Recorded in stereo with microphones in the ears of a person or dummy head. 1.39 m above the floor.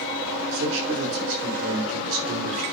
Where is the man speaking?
90° right, 6 m.